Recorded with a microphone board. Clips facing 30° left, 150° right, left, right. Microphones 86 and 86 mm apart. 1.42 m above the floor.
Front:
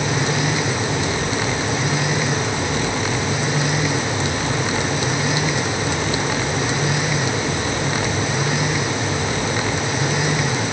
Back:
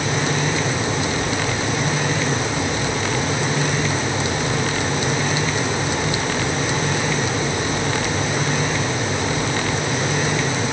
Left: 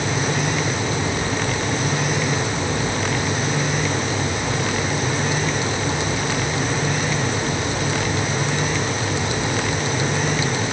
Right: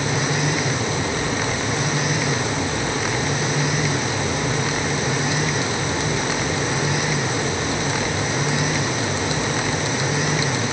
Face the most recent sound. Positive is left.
No sound to turn to.